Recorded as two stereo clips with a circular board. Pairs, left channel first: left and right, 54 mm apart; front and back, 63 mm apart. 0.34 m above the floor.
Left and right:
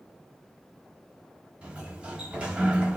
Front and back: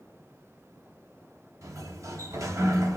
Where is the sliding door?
155° right, 0.8 m.